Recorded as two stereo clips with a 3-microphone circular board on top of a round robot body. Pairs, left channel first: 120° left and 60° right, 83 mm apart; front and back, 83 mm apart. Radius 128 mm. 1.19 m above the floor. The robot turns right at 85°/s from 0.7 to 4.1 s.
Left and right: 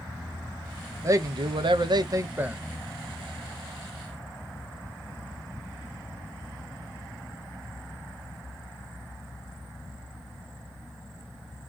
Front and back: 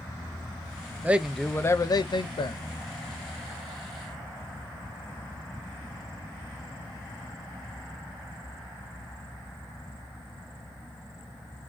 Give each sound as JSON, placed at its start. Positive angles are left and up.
{"t": 1.0, "sound": "a man speaking", "azimuth_deg": -110, "distance_m": 0.6}